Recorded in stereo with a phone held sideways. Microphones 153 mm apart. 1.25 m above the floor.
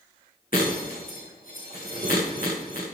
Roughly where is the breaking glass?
Left.